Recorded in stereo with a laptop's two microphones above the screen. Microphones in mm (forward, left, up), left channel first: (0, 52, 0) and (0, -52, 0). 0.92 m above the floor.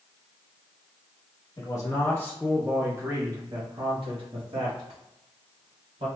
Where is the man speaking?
40° left (ahead or behind), 0.9 m; by 6.1 s 75° right (ahead or behind), 2 m.